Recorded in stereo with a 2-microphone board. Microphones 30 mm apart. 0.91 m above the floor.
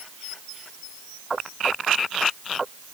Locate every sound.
Only background noise.